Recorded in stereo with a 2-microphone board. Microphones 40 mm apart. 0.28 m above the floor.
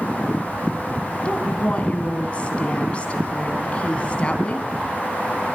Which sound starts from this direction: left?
A woman speaking, at 1.2 s.